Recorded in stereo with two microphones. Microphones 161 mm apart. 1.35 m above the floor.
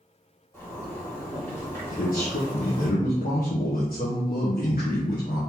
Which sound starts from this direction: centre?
A zipper, at 0.5 s.